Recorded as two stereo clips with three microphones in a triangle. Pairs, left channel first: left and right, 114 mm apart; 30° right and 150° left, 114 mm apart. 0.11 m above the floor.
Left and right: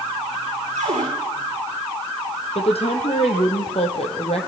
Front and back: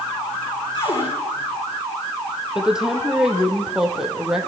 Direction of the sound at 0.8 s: 75° right.